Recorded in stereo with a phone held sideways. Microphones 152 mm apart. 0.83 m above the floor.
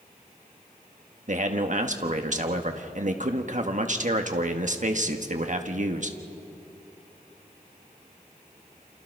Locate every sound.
1.3 s a man speaking: 55° right (ahead or behind), 1.4 m